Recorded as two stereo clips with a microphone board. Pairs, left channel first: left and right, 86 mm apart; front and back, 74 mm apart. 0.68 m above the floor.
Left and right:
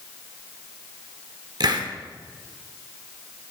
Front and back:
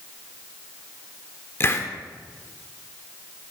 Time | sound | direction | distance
1.6 | a hiss | 55° right | 1.1 m